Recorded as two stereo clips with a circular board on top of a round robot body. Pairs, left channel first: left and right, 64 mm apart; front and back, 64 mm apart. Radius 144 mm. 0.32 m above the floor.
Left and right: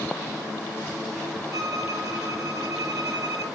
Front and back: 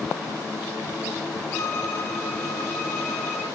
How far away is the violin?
About 4 m.